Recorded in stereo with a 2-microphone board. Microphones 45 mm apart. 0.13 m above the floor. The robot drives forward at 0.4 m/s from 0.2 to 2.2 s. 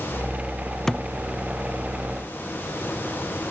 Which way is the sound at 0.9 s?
10° left (ahead or behind).